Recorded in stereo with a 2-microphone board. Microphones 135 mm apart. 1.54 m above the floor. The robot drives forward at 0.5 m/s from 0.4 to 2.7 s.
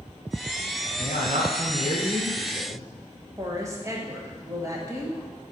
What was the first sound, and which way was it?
A man speaking, 55° right (ahead or behind).